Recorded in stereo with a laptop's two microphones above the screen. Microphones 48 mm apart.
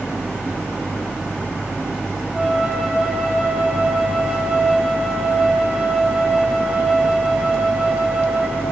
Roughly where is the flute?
Centre.